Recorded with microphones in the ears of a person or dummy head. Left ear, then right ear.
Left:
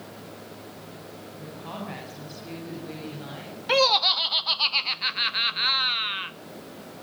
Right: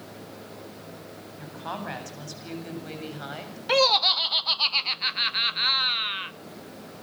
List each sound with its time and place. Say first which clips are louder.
1.4 s a woman speaking: right 4 dB; 45° right (ahead or behind), 8.5 m; by 3.6 s 35° right (ahead or behind), 7 m
3.7 s laughter: even; centre (ahead or behind), 0.7 m